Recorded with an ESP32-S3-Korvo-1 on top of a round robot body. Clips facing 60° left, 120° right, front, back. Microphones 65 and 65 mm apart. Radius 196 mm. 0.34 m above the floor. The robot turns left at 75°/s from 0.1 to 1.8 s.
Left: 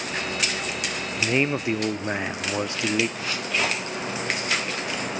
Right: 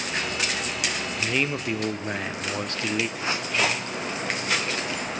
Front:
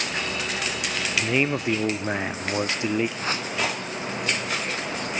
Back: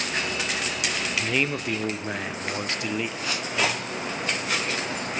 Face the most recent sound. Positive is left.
turn(degrees=-55)